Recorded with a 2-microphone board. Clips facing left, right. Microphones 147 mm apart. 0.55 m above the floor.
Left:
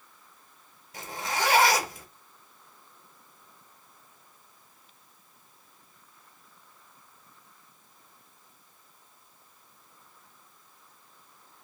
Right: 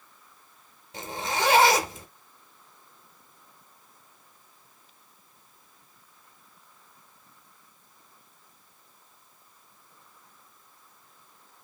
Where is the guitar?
I don't hear a guitar.